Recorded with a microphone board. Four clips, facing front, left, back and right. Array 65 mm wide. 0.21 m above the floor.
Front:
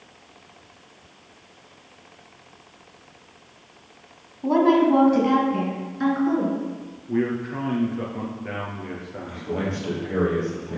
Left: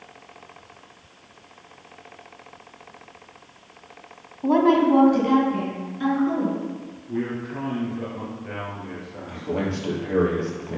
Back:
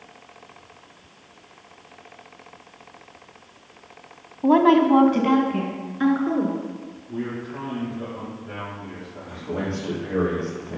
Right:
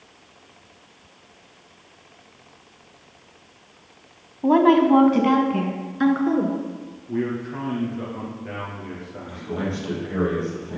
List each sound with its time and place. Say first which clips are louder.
4.4 s a woman speaking: right 2 dB, back 2 dB; 155° right, 1.2 m; by 6.6 s 105° right, 3 m
7.1 s a man speaking: right 2 dB, front 6 dB; 5° right, 3.5 m
9.3 s a man speaking: left 2 dB, even; 80° left, 4.5 m